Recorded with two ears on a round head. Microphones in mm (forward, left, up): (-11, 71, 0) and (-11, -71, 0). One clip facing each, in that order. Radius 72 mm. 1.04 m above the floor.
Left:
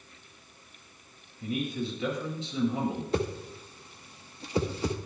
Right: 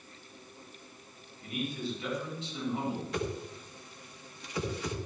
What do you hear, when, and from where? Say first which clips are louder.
1.4 s a man speaking: left 4 dB; 70° left (ahead or behind), 6 m
3.1 s a whoosh: left 4 dB; 30° left (ahead or behind), 1.3 m